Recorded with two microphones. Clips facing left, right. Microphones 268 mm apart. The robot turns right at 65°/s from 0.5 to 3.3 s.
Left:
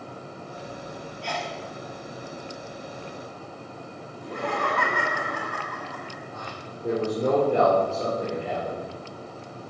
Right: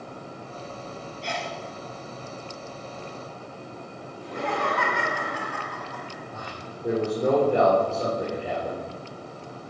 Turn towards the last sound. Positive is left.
turn(degrees=0)  # may be behind; listen again after turning